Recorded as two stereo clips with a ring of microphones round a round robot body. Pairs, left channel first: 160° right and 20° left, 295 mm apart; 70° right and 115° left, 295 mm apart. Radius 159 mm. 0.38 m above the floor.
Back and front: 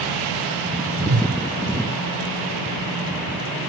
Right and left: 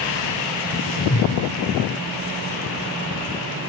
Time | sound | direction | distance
0.9 | a whoosh | 10° right | 1.9 m